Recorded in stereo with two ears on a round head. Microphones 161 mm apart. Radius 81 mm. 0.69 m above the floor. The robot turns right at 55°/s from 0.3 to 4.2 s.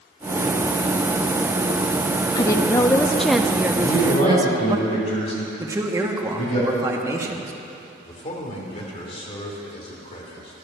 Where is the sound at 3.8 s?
60° left (ahead or behind), 4 m; by 6.6 s 35° left (ahead or behind), 4 m.